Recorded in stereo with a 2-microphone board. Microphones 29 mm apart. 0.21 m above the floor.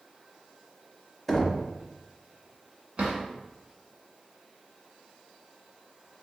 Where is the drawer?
40° right (ahead or behind), 1.4 m.